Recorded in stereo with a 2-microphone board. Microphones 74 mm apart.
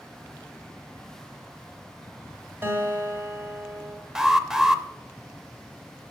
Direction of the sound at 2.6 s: 35° right (ahead or behind).